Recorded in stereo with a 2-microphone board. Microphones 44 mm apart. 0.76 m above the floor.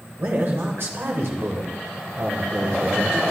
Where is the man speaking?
55° right (ahead or behind), 2.5 m; by 3.2 s 80° right, 1.9 m.